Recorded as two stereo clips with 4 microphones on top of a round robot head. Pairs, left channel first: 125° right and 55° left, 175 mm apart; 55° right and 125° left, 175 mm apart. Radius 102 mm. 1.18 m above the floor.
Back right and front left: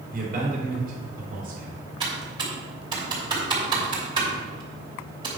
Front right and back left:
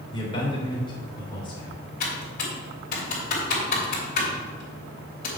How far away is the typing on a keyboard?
About 3 m.